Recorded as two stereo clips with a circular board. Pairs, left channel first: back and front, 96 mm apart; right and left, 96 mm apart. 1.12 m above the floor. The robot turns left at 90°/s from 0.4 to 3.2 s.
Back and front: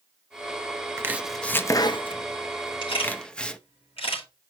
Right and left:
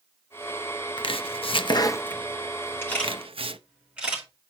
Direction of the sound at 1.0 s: 60° right.